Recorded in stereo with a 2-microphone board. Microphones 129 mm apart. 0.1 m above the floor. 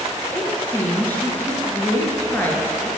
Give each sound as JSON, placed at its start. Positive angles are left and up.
{"t": 0.3, "sound": "a woman speaking", "side_deg": 15, "distance_m": 1.9}